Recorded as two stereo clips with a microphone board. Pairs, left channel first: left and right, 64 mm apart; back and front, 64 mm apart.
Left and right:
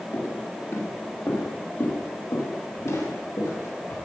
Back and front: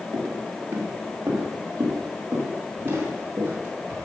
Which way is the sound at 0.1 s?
45° left.